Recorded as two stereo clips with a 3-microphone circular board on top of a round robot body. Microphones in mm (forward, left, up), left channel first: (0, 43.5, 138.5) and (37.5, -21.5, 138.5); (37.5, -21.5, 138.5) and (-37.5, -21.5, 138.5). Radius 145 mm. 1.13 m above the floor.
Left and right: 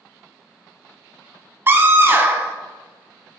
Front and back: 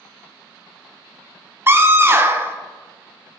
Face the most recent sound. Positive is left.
turn(degrees=-120)